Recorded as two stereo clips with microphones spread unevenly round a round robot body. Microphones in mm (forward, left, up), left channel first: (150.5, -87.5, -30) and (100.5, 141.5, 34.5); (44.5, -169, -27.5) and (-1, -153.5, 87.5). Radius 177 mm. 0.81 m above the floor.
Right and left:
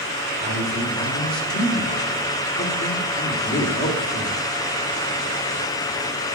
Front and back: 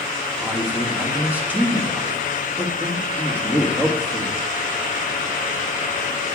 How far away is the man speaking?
About 2.5 m.